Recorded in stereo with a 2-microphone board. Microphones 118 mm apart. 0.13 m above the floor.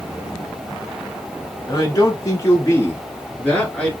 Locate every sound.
1.7 s a man speaking: 35° left (ahead or behind), 1.3 m; by 3.9 s 5° left (ahead or behind), 1.6 m